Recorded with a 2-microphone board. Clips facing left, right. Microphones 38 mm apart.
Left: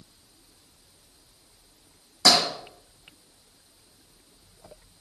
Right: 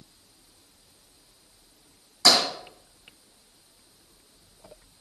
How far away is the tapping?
About 4.5 m.